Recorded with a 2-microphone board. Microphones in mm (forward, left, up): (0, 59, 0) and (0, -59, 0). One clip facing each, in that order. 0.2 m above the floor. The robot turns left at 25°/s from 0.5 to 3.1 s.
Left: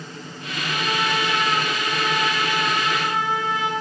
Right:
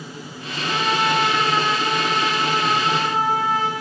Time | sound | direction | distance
0.6 | a trumpet | 75° right | 3.5 m